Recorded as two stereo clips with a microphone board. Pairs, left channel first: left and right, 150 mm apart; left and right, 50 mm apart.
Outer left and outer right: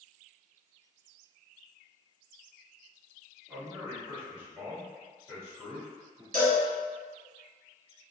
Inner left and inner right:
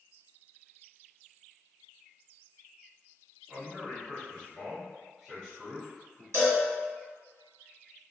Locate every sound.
3.5 s a man speaking: 10° right (ahead or behind), 1.7 m; by 6.2 s 5° right (ahead or behind), 1.6 m
6.3 s a cowbell: 65° right (ahead or behind), 1.6 m